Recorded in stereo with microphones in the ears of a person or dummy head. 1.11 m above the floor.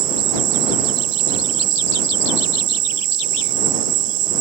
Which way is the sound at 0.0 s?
55° right (ahead or behind).